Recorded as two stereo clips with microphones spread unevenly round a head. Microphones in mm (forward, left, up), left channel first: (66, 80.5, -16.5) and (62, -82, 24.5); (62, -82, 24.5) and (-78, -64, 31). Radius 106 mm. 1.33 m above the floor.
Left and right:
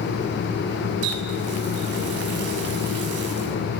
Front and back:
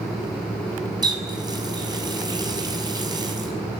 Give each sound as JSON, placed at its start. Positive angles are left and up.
{"t": 1.0, "sound": "a running tap", "azimuth_deg": -125, "distance_m": 7.0}